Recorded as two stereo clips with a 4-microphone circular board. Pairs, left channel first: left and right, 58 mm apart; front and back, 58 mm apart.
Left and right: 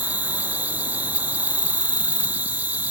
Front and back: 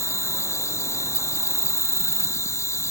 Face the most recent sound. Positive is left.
turn(degrees=-30)